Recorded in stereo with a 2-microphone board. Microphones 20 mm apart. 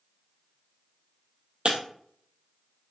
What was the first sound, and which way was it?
Breaking glass, 60° right (ahead or behind).